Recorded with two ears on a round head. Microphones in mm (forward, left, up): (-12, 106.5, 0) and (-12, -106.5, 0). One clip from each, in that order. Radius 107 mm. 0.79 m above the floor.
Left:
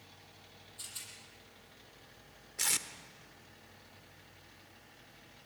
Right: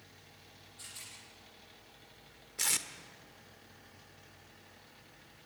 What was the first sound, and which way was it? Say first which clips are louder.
A rattle: left 2 dB; 20° left (ahead or behind).